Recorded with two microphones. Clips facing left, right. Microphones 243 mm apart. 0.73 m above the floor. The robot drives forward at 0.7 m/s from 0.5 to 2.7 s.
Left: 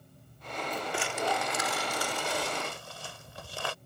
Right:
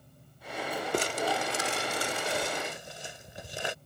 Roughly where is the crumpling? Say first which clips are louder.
Right 3 dB; right.